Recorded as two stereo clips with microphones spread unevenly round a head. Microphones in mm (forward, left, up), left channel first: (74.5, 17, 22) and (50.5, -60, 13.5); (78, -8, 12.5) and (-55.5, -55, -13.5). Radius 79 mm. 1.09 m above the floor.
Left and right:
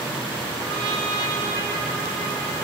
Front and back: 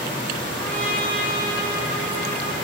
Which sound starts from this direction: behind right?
A trumpet, at 0.6 s.